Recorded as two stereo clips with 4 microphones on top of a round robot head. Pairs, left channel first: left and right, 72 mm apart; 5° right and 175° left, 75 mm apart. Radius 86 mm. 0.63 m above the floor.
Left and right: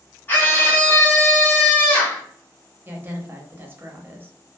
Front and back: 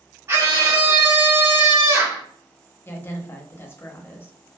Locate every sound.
0.3 s a scream: 145° left, 1.7 m
2.9 s a woman speaking: 45° right, 0.9 m